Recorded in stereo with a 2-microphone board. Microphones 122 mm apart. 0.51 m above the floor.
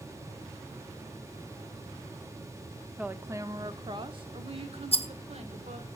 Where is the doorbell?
No doorbell in this recording.